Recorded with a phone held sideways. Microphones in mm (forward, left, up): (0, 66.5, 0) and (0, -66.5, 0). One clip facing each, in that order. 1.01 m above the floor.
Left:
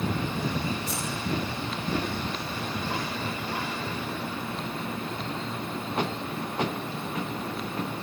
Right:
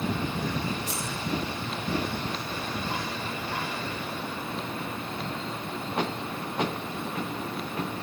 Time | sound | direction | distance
0.9 | scissors | 80° right | 7 m